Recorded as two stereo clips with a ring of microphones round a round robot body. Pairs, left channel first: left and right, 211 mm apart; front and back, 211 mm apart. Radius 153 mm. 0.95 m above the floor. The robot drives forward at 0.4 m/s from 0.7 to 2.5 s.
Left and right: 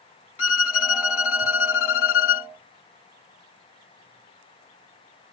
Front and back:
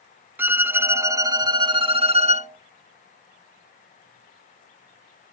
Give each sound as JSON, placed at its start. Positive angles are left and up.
{"t": 0.4, "sound": "a violin", "azimuth_deg": 100}